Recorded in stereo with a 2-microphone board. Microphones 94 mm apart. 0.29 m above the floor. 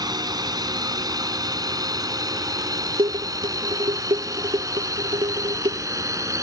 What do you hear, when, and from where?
0.0 s a drone: 45° right (ahead or behind); by 6.4 s 35° right (ahead or behind)
3.0 s dishes clattering: 65° right (ahead or behind)